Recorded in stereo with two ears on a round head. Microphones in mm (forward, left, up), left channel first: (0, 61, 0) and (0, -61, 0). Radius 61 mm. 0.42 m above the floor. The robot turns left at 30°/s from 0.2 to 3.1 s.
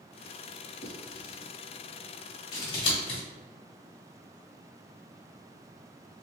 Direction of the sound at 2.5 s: 35° left (ahead or behind).